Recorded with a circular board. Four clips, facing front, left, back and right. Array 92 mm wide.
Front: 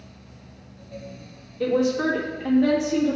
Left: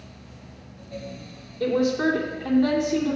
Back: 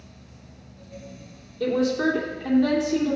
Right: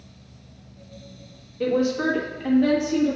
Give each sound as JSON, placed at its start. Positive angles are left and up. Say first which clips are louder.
{"t": 1.6, "sound": "a woman speaking", "louder": "even, front 1 dB", "azimuth_deg": -50, "distance_m": 1.4}